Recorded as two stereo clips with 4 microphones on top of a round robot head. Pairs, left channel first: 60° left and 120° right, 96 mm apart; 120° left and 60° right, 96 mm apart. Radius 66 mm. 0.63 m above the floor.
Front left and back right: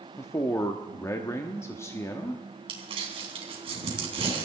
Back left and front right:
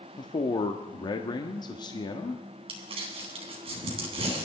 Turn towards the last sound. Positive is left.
turn(degrees=-85)